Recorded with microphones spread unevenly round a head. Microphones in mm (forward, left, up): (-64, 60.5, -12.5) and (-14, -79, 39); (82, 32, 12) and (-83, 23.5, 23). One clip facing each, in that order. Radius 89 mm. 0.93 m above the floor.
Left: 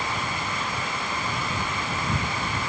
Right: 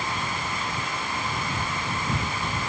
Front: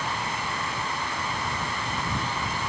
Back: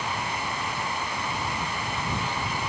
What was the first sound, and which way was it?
Only background noise.